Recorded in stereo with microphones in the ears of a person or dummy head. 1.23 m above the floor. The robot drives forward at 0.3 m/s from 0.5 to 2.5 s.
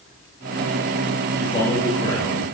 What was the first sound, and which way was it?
A man speaking, 30° left (ahead or behind).